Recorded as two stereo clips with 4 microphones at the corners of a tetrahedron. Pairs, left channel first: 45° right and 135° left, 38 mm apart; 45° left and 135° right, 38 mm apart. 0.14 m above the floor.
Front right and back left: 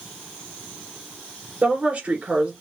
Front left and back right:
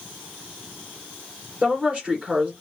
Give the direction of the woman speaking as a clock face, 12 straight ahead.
6 o'clock.